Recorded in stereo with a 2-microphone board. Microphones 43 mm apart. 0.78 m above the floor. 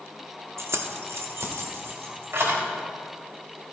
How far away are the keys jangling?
About 0.7 m.